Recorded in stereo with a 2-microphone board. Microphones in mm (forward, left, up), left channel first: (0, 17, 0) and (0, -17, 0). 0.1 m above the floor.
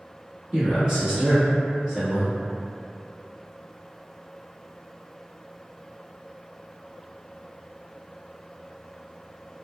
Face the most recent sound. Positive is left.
turn(degrees=-25)  # may be behind; listen again after turning